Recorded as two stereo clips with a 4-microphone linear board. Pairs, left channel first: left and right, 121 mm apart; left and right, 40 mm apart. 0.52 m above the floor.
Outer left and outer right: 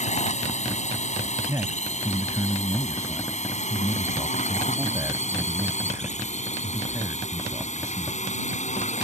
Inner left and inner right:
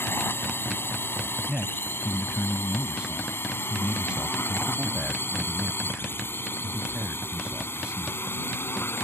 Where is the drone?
70° left (ahead or behind).